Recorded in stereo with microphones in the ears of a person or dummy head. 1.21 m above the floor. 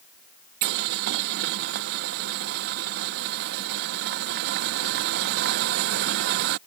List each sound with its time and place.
0.6 s boiling: 60° right (ahead or behind)